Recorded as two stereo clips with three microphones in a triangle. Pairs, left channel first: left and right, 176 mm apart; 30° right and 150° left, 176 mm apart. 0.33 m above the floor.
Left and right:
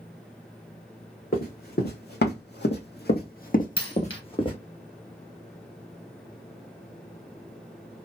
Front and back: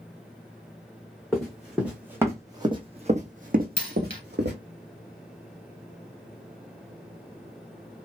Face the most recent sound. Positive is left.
turn(degrees=30)